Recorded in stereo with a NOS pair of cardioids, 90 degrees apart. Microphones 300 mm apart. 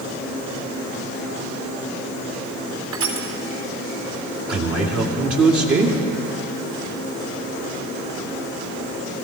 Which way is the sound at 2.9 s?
55° right.